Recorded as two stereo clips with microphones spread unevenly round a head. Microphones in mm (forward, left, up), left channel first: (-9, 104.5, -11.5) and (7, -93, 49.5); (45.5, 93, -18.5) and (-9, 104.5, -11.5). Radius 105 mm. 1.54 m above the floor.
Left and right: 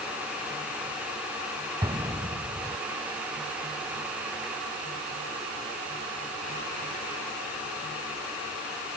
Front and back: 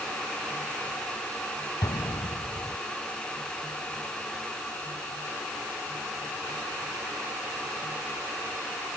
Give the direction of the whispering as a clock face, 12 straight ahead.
I don't hear whispering.